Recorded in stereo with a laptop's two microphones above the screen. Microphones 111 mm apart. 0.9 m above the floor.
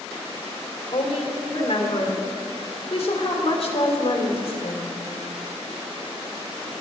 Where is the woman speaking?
60° left (ahead or behind), 2.5 m.